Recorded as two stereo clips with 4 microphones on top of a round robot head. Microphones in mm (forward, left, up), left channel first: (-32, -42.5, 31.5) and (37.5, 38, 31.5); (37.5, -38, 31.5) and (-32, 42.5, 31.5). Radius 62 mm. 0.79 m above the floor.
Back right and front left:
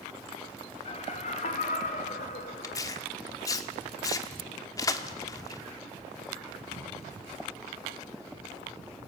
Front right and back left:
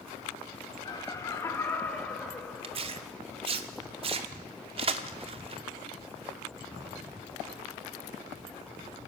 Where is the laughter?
100° right, 2 m; by 3.1 s 140° right, 3.5 m.